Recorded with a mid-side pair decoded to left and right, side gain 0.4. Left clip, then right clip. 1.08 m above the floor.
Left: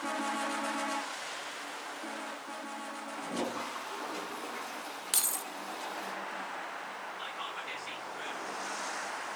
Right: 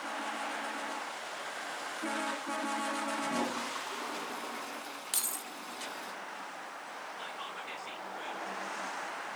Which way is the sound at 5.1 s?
30° left.